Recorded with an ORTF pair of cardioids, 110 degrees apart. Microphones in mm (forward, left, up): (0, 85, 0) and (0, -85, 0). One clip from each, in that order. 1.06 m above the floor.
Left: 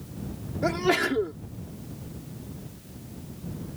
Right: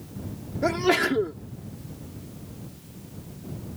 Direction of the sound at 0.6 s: 10° right.